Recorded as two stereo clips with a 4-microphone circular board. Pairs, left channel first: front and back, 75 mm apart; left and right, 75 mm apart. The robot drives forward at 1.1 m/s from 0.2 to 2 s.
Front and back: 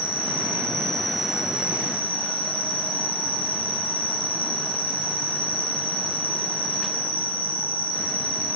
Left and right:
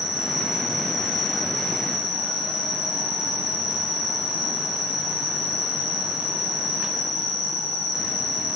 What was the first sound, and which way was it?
An insect, 55° left.